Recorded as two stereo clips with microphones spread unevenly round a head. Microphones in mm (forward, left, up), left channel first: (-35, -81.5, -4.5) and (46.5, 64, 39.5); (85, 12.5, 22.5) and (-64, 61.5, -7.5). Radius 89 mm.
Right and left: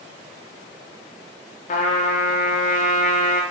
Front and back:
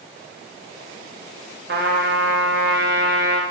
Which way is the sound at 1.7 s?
165° right.